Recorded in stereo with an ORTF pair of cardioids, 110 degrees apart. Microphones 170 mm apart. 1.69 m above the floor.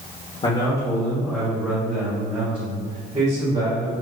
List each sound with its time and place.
0.4 s a man speaking: 30° left, 1.2 m; by 3.9 s 45° right, 2.5 m